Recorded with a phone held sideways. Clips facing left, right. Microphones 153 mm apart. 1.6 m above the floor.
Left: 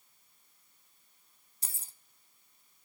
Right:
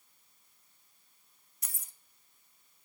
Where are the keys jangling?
30° left (ahead or behind), 0.7 m.